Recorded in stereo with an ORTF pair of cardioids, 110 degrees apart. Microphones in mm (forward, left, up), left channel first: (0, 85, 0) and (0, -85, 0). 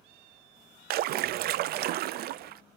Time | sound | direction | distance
0.9 | a splash | 65° right | 0.5 m